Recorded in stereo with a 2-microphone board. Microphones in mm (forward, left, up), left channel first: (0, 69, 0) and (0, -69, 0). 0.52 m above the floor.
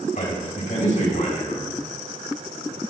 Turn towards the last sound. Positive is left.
turn(degrees=70)  # may be behind; listen again after turning